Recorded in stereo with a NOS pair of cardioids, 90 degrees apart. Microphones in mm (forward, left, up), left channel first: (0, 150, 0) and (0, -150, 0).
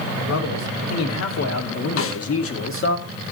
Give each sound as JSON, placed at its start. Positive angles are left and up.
{"t": 0.3, "sound": "a man speaking", "azimuth_deg": 65, "distance_m": 3.5}
{"t": 2.0, "sound": "a snare drum", "azimuth_deg": 50, "distance_m": 1.0}